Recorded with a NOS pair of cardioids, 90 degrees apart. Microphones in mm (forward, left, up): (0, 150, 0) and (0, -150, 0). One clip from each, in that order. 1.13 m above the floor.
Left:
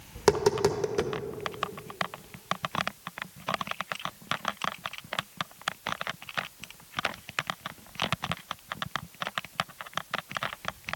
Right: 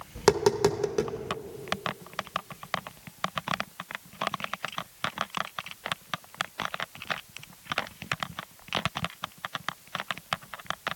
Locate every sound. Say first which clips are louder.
0.1 s tapping: right 1 dB; 15° right, 0.8 m